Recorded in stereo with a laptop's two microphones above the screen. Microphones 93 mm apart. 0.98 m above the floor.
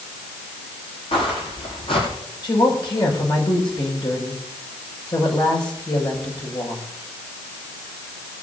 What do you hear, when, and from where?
1.1 s footsteps: 70° left (ahead or behind), 7 m
2.4 s a woman speaking: 55° left (ahead or behind), 5.5 m